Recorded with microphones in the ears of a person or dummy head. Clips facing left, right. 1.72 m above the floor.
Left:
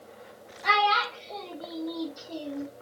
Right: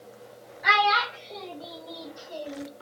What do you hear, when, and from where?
0.6 s a child speaking: 20° right (ahead or behind), 1.3 m; by 2.7 s 35° left (ahead or behind), 0.8 m